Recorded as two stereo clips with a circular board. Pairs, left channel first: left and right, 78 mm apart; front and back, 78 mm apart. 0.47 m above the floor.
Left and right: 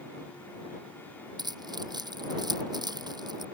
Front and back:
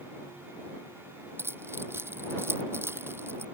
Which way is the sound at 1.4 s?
120° right.